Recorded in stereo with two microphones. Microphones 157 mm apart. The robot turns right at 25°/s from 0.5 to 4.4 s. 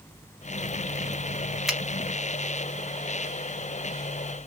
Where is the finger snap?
Centre (ahead or behind), 0.9 m.